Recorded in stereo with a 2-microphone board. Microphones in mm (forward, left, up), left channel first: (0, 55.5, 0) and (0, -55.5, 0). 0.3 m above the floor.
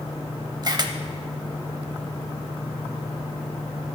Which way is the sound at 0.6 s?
40° right (ahead or behind).